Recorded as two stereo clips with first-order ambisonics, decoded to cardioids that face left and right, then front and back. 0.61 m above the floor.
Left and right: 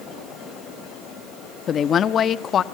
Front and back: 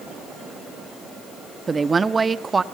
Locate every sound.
1.7 s a woman speaking: 115° left, 0.6 m